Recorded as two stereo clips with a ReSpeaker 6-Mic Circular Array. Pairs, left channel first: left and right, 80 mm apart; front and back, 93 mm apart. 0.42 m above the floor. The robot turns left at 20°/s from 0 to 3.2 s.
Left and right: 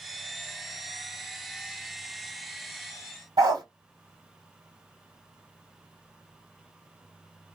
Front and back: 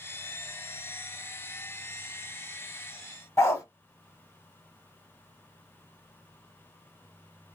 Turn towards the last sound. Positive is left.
turn(degrees=-60)